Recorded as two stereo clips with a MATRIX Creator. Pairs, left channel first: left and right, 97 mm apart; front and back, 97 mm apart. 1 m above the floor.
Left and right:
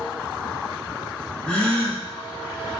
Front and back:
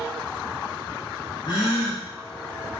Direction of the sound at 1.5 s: 15° left.